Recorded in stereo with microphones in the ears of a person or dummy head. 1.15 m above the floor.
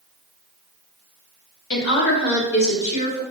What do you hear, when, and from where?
1.7 s a woman speaking: 55° left (ahead or behind), 1.1 m; by 3.2 s 65° left (ahead or behind), 1.8 m